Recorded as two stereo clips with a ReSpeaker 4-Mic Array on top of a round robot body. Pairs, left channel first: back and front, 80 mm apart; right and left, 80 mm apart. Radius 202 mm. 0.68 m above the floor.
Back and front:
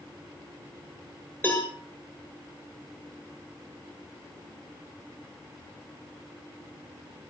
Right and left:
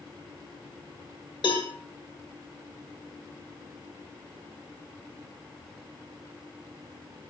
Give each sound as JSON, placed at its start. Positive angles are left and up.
{"t": 1.4, "sound": "a cowbell", "azimuth_deg": -110, "distance_m": 9.5}